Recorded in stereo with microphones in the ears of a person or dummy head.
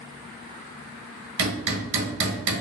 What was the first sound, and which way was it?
Hammering, 60° right (ahead or behind).